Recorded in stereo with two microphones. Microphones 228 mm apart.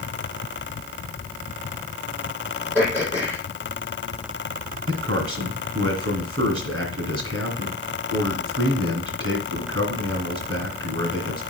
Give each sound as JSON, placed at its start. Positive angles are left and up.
{"t": 2.8, "sound": "throat clearing", "side_deg": -10, "distance_m": 4.5}
{"t": 4.9, "sound": "a man speaking", "side_deg": -70, "distance_m": 2.5}